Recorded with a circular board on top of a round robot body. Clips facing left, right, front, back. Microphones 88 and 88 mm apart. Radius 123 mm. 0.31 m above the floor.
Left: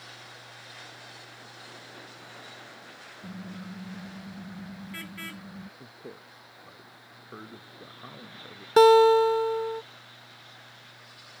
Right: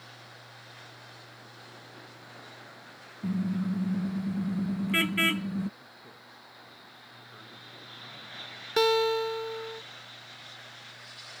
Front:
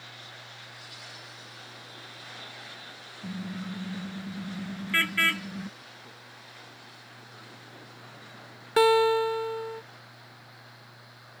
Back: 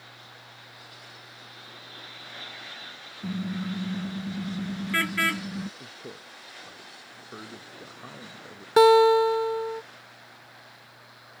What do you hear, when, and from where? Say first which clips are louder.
3.2 s a car horn: right 12 dB, back 5 dB; 110° right; by 5.7 s 100° right
5.8 s a man speaking: left 6 dB, back 6 dB; 140° left
8.8 s a guitar: left 9 dB, back 5 dB; 120° left